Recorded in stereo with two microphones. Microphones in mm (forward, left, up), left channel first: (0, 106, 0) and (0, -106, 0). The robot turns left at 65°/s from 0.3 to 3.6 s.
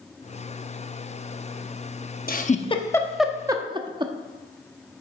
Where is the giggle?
45° left (ahead or behind), 0.8 m; by 4.1 s 20° right (ahead or behind), 0.8 m.